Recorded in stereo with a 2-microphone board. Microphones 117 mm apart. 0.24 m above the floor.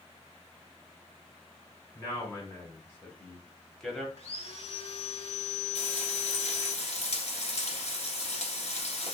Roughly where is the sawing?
Left.